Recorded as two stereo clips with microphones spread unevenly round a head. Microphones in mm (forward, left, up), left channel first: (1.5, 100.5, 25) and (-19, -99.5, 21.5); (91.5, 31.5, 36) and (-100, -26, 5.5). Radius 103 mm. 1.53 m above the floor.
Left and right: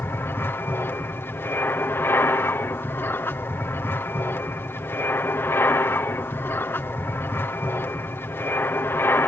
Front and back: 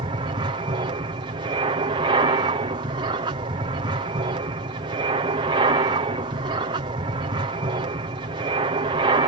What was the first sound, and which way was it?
An aircraft, 160° left.